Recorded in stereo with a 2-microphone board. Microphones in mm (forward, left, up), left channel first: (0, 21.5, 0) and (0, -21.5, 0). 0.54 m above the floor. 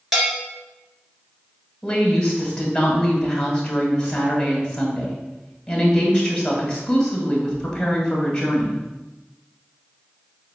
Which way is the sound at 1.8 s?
20° left (ahead or behind).